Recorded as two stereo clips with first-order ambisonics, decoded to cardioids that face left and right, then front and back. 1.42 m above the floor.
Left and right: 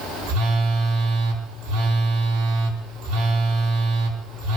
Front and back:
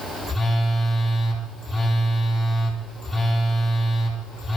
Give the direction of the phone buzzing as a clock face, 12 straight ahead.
3 o'clock.